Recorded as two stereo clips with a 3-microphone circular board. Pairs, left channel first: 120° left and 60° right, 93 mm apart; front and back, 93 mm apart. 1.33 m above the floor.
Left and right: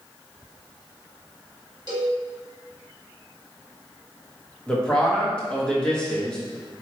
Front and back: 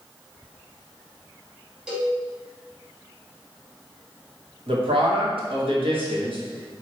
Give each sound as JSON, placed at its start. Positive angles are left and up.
{"t": 1.9, "sound": "a cowbell", "azimuth_deg": -100, "distance_m": 1.4}
{"t": 4.7, "sound": "a man speaking", "azimuth_deg": -160, "distance_m": 1.2}